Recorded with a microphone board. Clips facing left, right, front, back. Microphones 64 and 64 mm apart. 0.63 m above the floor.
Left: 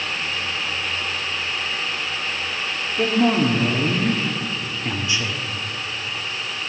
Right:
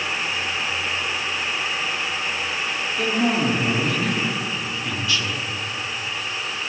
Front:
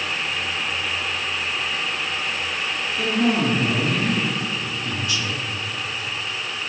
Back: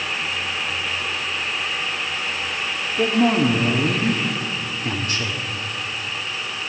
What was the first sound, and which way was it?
A man speaking, 150° left.